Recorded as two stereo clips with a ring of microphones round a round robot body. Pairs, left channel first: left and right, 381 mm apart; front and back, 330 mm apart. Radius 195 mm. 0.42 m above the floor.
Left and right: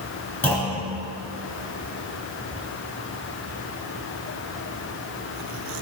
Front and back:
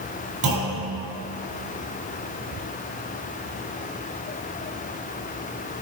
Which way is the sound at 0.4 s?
175° left.